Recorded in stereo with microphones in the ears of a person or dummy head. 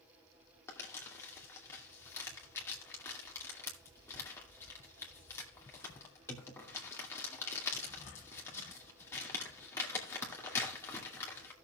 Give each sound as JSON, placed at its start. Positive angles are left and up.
{"t": 0.7, "sound": "crumpling", "side_deg": 10, "distance_m": 2.0}